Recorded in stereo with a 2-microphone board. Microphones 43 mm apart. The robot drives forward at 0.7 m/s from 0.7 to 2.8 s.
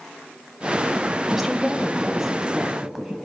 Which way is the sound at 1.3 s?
5° right (ahead or behind).